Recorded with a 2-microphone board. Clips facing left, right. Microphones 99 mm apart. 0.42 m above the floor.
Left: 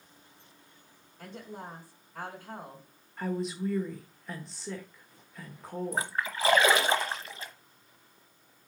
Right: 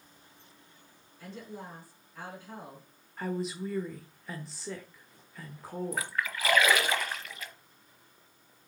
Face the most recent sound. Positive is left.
turn(degrees=30)  # may be behind; listen again after turning